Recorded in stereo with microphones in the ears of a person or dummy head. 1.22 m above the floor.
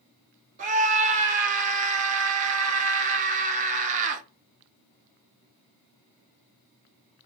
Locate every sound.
0.6 s a scream: 35° right (ahead or behind), 0.6 m